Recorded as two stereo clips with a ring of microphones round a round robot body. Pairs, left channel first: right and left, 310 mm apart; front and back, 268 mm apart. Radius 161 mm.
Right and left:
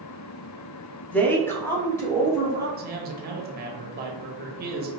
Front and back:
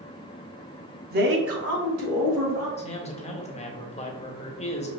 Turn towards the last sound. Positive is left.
turn(degrees=50)